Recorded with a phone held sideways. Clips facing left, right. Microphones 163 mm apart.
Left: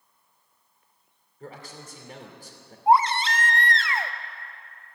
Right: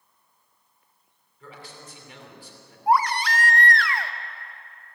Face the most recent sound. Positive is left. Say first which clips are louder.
# left 2 dB
turn(degrees=25)  # may be behind; listen again after turning